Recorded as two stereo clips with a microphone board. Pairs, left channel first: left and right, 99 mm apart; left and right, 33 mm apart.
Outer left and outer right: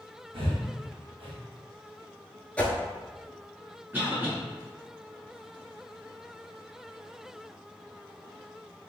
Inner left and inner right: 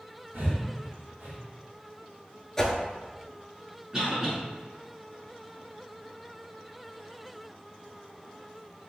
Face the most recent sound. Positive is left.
turn(degrees=-20)  # may be behind; listen again after turning